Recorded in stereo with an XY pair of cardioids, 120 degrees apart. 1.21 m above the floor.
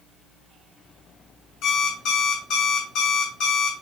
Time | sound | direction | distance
1.6 | an alarm clock | 65° left | 7 m